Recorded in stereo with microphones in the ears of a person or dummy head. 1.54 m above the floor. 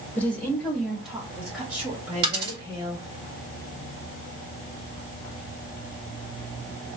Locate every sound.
0.1 s a woman speaking: 5° left (ahead or behind), 1.8 m; by 3.2 s 30° right (ahead or behind), 3 m
2.2 s a dropped coin: 30° right (ahead or behind), 2.5 m